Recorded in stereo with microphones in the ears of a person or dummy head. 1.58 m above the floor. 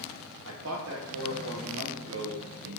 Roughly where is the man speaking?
Right.